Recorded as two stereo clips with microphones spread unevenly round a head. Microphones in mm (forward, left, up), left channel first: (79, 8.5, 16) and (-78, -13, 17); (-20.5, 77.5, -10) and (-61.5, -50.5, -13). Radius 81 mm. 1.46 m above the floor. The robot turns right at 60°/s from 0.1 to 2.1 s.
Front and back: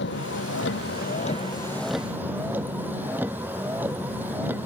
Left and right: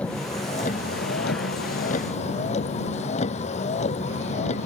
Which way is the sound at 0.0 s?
10° right.